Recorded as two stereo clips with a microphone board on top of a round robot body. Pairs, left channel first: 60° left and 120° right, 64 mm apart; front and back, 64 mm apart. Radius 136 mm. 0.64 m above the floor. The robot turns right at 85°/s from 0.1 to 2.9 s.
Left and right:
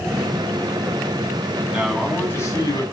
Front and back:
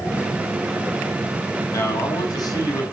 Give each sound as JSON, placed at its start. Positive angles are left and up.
{"t": 1.7, "sound": "a man speaking", "azimuth_deg": -50, "distance_m": 7.0}